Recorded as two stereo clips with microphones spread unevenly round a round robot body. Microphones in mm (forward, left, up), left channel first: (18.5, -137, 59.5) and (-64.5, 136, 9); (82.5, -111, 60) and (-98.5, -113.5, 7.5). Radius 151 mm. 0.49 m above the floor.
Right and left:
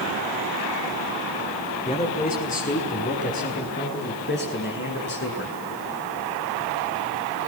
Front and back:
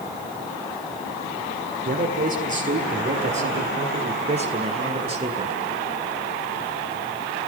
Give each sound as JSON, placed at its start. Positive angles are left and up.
{"t": 1.9, "sound": "a man speaking", "azimuth_deg": -140, "distance_m": 8.5}